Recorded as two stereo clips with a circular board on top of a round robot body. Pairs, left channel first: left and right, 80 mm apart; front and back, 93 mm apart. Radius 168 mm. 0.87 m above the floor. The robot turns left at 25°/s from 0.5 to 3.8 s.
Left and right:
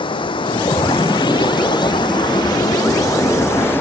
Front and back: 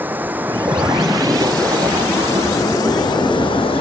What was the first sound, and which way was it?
Running water, 110° left.